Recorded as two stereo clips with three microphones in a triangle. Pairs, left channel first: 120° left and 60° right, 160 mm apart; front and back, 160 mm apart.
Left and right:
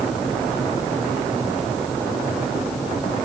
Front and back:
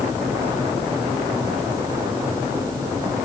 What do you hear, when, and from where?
Only background noise.